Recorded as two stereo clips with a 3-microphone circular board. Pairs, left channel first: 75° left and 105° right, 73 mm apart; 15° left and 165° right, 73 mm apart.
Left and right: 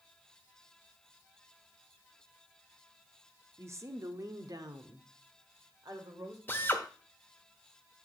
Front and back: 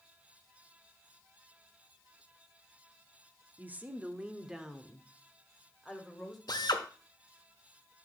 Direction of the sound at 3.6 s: 120° right.